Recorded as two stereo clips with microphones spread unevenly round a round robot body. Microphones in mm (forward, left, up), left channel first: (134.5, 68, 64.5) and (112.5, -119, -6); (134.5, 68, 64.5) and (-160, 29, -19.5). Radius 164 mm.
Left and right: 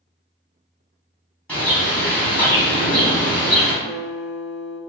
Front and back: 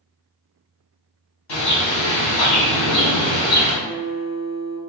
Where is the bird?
5° right, 1.9 m.